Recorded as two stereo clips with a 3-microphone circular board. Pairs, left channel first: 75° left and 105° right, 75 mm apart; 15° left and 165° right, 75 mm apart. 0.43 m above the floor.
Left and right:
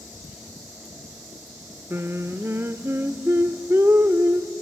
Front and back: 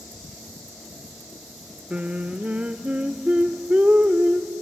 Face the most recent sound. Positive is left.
turn(degrees=-105)